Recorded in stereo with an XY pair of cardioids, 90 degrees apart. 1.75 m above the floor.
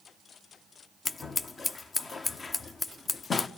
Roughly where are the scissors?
Ahead left.